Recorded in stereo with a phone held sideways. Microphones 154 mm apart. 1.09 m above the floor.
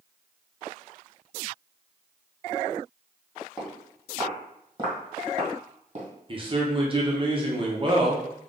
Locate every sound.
3.6 s footsteps: 10° right (ahead or behind), 1.8 m; by 6.1 s 45° right (ahead or behind), 1.6 m
6.3 s a man speaking: 35° right (ahead or behind), 1.0 m